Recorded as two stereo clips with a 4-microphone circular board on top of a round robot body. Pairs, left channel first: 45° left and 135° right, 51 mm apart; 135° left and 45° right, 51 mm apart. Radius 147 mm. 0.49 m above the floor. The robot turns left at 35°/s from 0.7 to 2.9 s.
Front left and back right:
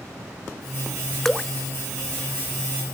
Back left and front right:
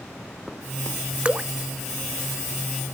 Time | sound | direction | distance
1.2 | dripping | 30° right | ?